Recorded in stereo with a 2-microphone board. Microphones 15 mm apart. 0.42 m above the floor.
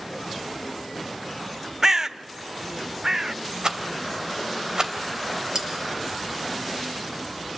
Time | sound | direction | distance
1.8 | a bird | 35° right (ahead or behind) | 0.6 m
3.6 | a rattle | 50° right (ahead or behind) | 2.5 m
5.5 | cutlery clinking | 50° right (ahead or behind) | 4.5 m